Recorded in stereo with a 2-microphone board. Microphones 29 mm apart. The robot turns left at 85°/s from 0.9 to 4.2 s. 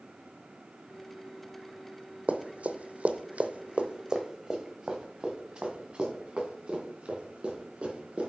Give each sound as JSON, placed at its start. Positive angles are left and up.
{"t": 2.3, "sound": "running footsteps", "side_deg": -55, "distance_m": 0.8}